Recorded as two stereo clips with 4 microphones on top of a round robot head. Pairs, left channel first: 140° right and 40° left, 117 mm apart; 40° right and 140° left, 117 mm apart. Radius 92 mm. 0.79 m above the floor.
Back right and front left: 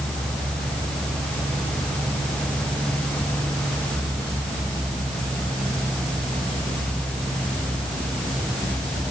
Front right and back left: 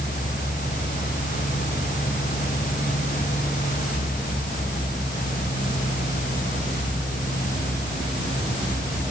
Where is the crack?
No crack in this recording.